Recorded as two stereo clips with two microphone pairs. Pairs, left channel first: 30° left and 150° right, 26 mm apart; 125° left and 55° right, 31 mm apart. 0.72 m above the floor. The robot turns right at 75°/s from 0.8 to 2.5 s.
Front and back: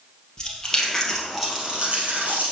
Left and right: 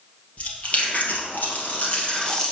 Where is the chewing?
85° left, 2.5 m; by 2.5 s 145° right, 2.5 m.